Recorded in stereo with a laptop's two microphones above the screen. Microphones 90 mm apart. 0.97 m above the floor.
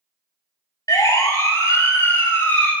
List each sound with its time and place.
0.9 s a siren: 40° left (ahead or behind), 6.5 m; by 2.7 s 25° left (ahead or behind), 7 m